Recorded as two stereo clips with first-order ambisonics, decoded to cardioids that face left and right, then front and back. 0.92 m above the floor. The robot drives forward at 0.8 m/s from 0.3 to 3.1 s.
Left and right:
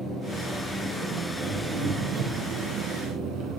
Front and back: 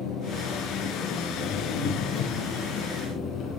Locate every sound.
0.0 s an engine running: 30° right, 4.5 m; by 3.6 s 50° right, 3 m